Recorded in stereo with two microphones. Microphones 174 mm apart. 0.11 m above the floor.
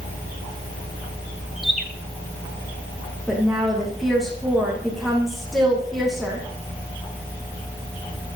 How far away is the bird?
About 2.5 m.